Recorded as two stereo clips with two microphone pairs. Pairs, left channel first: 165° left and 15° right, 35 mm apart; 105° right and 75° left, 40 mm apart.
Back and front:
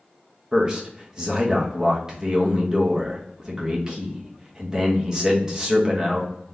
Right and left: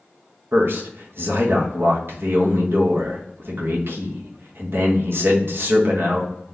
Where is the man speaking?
55° left, 0.9 m.